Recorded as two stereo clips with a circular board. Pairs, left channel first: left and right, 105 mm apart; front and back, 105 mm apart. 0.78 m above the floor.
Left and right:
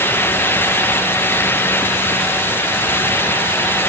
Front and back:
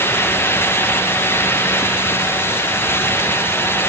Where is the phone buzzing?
No phone buzzing in this recording.